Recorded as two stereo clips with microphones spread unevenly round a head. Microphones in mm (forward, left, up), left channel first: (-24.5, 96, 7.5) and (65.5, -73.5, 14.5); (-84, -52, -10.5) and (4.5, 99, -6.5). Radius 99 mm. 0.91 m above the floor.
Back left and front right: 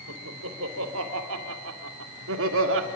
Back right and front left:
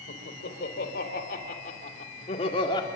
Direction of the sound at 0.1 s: 80° right.